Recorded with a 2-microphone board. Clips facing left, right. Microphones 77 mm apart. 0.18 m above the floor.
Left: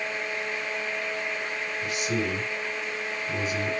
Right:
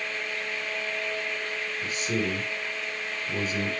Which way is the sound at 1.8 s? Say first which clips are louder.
Even; 40° right (ahead or behind).